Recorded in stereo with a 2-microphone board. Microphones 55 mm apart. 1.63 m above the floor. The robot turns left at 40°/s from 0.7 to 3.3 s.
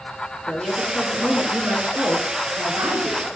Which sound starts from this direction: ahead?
A woman speaking, at 0.5 s.